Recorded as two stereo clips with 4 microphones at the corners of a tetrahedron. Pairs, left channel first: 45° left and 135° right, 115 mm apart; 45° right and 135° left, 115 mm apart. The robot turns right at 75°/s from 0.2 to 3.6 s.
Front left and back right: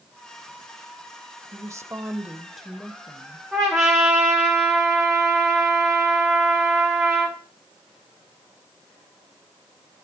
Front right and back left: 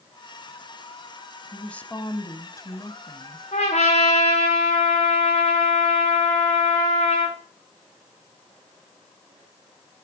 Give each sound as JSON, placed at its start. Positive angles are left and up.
{"t": 1.5, "sound": "a woman speaking", "azimuth_deg": -130, "distance_m": 1.0}
{"t": 3.5, "sound": "a trumpet", "azimuth_deg": -50, "distance_m": 5.5}